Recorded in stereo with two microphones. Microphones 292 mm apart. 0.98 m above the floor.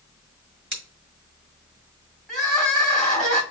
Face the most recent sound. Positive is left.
turn(degrees=0)  # may be behind; listen again after turning